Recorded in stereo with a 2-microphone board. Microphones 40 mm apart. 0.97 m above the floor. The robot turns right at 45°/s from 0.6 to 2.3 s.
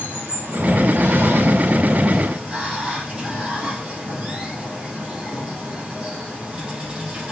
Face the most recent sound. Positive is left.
turn(degrees=-30)